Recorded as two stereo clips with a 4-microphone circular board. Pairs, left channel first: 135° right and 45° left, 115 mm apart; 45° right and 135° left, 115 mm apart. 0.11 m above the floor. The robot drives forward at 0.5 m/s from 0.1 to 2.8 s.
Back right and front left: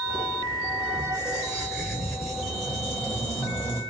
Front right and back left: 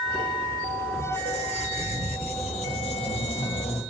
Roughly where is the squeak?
Ahead right.